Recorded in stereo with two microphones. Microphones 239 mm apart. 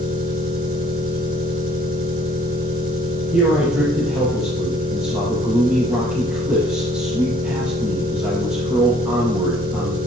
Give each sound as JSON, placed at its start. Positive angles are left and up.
{"t": 0.0, "sound": "an engine running", "side_deg": -60, "distance_m": 2.0}
{"t": 3.3, "sound": "a man speaking", "side_deg": -5, "distance_m": 3.0}